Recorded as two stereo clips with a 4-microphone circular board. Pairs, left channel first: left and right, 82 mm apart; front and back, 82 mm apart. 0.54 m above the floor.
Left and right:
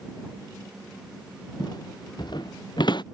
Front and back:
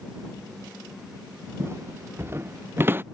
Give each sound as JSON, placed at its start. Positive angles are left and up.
{"t": 1.6, "sound": "footsteps", "azimuth_deg": 120}